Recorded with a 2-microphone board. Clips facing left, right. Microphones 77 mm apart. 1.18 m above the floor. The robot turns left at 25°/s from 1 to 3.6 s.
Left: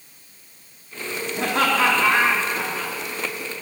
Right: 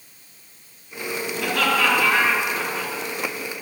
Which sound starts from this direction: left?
Laughter, at 1.4 s.